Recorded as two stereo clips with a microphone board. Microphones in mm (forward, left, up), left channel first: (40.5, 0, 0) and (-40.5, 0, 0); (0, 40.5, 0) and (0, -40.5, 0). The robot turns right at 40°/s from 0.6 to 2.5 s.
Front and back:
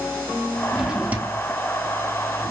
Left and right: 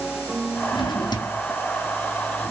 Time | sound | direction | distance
0.7 | a drawer | 95° left | 0.7 m